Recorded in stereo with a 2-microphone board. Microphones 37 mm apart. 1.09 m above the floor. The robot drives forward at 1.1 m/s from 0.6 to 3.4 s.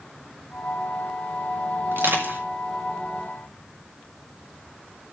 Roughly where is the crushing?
Right.